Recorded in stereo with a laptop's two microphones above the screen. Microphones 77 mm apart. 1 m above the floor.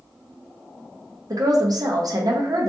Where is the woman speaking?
55° right (ahead or behind), 0.5 m.